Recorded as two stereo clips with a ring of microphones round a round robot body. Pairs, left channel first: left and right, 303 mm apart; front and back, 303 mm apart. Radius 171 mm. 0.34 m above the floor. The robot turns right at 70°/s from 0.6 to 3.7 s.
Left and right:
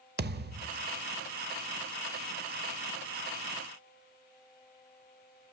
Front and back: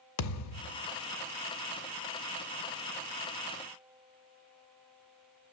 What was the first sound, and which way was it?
A thud, 30° right.